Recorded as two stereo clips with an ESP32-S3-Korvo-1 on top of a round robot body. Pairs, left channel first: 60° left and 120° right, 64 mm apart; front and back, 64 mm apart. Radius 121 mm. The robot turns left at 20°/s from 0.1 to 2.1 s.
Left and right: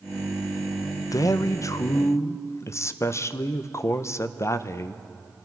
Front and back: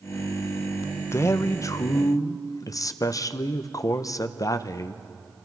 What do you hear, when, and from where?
1.1 s a man speaking: 40° left, 0.8 m; by 5.0 s 20° left, 0.8 m